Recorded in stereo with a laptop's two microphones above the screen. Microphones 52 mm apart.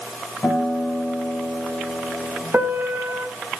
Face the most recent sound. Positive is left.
turn(degrees=-40)  # may be behind; listen again after turning